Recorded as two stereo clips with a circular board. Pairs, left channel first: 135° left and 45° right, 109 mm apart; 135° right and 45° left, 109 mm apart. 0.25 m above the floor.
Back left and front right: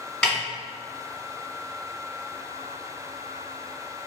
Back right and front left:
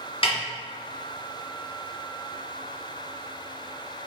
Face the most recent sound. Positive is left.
turn(degrees=-145)